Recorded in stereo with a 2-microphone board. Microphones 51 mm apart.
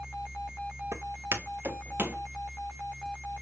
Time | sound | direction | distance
0.9 | footsteps | 65° right (ahead or behind) | 1.8 m